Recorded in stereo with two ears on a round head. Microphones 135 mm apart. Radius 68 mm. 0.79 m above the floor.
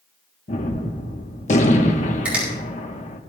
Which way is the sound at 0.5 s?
50° left (ahead or behind).